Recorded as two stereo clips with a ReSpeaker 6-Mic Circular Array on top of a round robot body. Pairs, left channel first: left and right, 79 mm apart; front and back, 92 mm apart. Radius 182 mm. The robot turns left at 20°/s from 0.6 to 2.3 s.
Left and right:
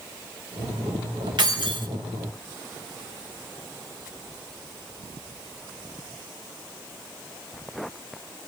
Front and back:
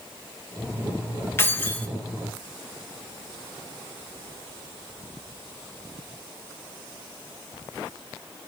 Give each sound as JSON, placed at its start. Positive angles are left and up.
{"t": 1.4, "sound": "keys jangling", "azimuth_deg": -65, "distance_m": 1.5}